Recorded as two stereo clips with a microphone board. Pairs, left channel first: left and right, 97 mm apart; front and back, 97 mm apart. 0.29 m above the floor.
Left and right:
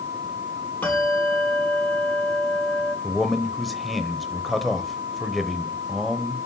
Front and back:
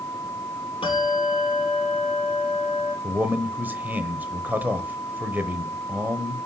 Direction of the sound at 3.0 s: Straight behind.